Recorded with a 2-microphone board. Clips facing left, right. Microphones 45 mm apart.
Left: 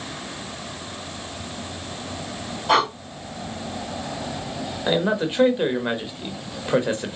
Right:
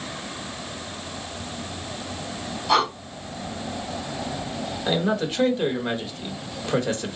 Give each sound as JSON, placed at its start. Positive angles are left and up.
{"t": 2.7, "sound": "breathing", "side_deg": 45, "distance_m": 1.9}
{"t": 4.9, "sound": "a man speaking", "side_deg": 20, "distance_m": 0.9}